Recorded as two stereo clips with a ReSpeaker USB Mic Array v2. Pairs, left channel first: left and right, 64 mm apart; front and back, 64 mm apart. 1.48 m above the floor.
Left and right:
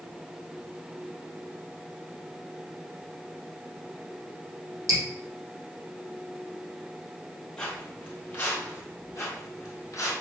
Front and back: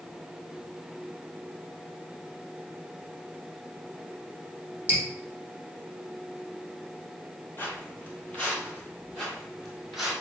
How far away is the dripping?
About 1.5 m.